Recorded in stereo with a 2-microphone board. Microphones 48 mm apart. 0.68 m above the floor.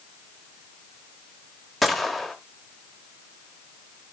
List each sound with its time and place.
1.8 s a gunshot: 5° left (ahead or behind), 1.2 m